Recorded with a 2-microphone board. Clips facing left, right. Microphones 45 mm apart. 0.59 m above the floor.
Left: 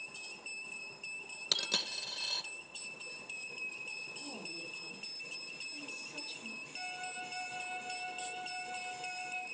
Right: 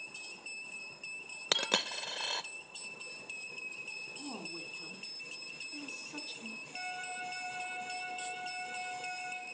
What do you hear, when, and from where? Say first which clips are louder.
1.5 s a dropped coin: right 5 dB; 45° right (ahead or behind), 0.6 m
4.2 s a woman speaking: right 2 dB; 75° right (ahead or behind), 4.5 m
6.7 s a flute: right 3 dB; 80° right, 4.5 m